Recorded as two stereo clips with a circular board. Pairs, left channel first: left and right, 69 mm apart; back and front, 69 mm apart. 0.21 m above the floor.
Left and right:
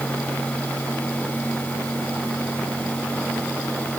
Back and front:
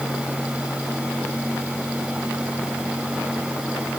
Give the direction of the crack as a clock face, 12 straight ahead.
No crack in this recording.